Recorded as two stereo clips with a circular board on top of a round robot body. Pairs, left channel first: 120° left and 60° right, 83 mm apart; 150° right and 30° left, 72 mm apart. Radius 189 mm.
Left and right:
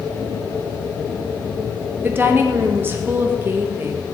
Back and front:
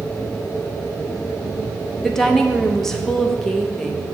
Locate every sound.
2.0 s a woman speaking: 75° right, 1.2 m